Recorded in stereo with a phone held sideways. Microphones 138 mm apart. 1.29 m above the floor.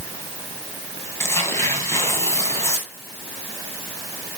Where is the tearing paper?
20° left (ahead or behind), 3 m.